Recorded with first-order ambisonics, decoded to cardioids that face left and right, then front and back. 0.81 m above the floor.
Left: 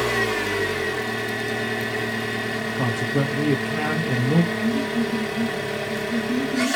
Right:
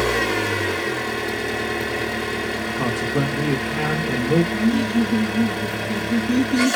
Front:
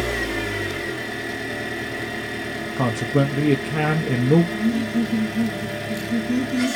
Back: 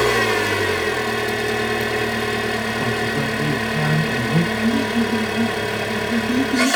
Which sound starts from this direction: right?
Laughter, at 4.5 s.